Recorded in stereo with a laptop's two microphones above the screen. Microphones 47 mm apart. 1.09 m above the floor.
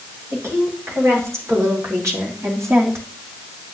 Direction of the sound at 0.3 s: 60° right (ahead or behind).